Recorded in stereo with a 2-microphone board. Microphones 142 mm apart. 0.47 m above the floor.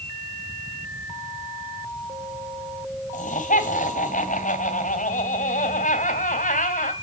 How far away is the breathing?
I don't hear breathing.